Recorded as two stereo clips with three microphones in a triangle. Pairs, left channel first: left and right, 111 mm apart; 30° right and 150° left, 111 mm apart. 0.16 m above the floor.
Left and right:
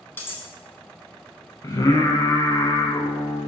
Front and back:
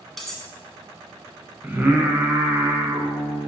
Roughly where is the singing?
Left.